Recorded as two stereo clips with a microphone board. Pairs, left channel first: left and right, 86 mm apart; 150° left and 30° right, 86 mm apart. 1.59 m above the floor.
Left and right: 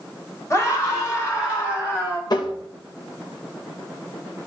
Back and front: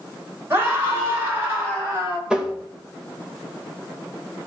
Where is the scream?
30° left, 7.5 m; by 2.2 s 20° left, 9 m.